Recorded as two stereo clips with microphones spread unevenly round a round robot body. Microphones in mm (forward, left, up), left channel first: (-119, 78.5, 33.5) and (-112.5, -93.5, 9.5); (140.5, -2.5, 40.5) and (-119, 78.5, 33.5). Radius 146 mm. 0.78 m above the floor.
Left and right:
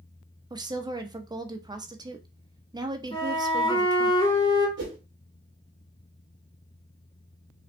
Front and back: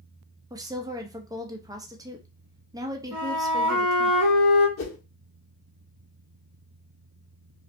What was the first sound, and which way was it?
A woman speaking, 130° right.